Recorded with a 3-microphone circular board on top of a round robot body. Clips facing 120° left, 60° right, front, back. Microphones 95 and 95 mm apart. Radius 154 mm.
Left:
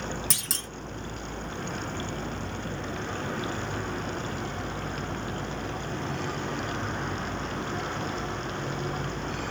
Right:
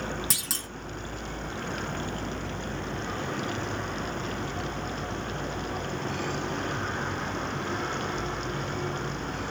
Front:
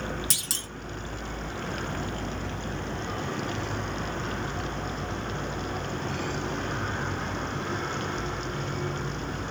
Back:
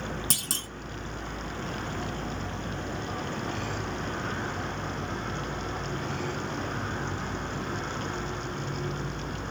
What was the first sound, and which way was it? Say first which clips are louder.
A clunk: even, back 2 dB; 145° right.